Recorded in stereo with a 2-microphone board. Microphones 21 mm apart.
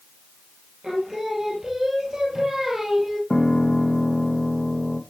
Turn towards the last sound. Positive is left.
turn(degrees=50)  # may be behind; listen again after turning